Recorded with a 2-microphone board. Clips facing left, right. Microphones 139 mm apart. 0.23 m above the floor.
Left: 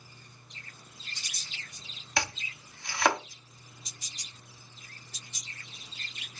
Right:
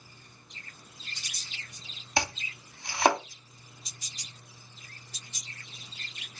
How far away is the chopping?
About 0.8 m.